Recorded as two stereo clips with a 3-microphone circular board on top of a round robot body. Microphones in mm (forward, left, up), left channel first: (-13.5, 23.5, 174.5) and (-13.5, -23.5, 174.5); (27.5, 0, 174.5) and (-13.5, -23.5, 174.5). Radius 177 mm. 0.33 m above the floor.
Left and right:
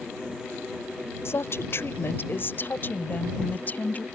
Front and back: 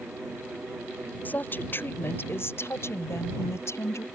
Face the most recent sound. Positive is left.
turn(degrees=35)